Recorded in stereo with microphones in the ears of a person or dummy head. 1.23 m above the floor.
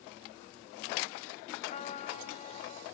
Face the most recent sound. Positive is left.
turn(degrees=35)  # may be behind; listen again after turning